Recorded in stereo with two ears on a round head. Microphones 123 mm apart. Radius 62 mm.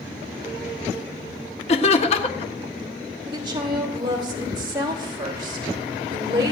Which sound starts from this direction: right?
A woman speaking, at 3.3 s.